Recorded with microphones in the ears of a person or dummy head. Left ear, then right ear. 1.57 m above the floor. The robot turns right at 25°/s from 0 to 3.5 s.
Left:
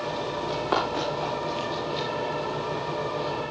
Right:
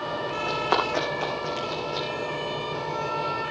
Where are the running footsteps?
20° right (ahead or behind), 3.5 m; by 2.1 s 25° right (ahead or behind), 2 m.